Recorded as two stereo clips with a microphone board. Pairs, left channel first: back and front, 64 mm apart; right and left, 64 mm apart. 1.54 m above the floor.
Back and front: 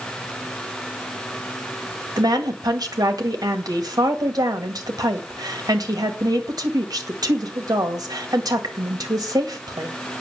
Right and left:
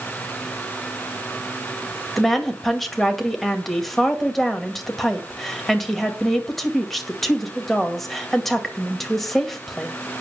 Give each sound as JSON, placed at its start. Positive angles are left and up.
{"t": 2.2, "sound": "a woman speaking", "azimuth_deg": 0, "distance_m": 2.0}